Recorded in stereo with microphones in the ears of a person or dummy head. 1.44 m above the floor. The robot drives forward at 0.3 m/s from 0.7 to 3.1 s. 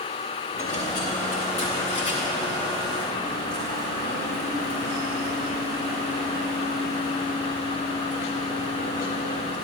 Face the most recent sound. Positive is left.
turn(degrees=25)  # may be behind; listen again after turning